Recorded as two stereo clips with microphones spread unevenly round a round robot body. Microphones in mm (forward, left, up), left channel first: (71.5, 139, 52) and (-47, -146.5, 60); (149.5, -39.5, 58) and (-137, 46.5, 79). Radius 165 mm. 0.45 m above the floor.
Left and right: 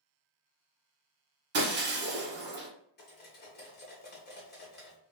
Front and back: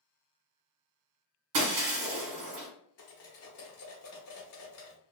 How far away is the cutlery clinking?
About 1.0 m.